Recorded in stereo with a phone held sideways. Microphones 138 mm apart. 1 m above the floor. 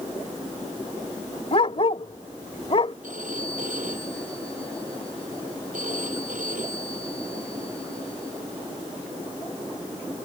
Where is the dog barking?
45° left (ahead or behind).